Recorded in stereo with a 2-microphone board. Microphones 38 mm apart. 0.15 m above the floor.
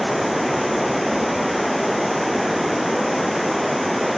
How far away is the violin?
I don't hear a violin.